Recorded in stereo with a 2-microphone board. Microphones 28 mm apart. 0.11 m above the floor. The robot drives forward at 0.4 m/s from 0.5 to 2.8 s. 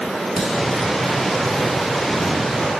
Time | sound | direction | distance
0.4 | a crack | 5° right (ahead or behind) | 1.7 m